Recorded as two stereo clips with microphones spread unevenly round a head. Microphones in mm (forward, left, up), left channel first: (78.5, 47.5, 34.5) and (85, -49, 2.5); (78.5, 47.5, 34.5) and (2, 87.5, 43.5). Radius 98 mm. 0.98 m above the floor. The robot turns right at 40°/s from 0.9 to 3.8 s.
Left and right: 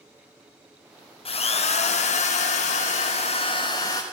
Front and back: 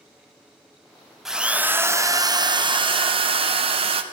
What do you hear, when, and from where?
1.2 s a drill: 65° left, 0.9 m; by 4.0 s 165° left, 0.9 m